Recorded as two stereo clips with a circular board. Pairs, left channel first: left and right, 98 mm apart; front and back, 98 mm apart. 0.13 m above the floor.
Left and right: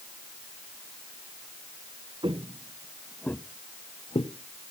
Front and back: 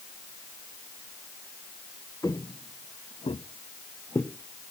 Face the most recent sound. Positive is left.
turn(degrees=75)